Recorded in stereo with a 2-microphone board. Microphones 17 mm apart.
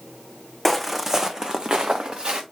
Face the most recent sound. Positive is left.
turn(degrees=-70)  # may be behind; listen again after turning